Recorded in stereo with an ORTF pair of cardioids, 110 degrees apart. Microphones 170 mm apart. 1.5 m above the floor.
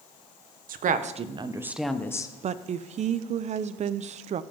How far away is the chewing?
I don't hear chewing.